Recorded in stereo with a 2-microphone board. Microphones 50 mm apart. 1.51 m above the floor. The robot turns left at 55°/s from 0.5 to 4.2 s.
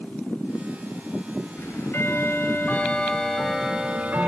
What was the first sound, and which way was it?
Ticking, 100° left.